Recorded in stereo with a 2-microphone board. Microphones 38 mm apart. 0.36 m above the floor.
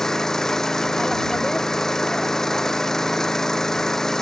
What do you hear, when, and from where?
0.0 s an engine running: 10° left (ahead or behind)